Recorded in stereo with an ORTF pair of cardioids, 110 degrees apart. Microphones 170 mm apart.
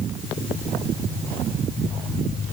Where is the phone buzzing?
No phone buzzing in this recording.